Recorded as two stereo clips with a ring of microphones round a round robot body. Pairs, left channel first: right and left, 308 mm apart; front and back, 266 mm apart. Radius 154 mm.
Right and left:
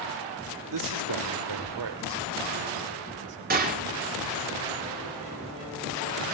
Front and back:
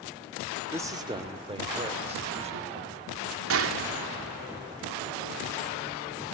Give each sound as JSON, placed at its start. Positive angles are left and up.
{"t": 0.7, "sound": "a man speaking", "azimuth_deg": 100, "distance_m": 1.4}
{"t": 3.5, "sound": "a gunshot", "azimuth_deg": 150, "distance_m": 2.5}